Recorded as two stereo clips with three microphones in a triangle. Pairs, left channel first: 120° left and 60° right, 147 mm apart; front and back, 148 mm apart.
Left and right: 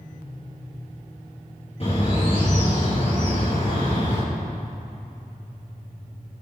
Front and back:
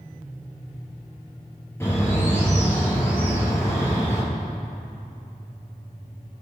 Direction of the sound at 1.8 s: 75° left.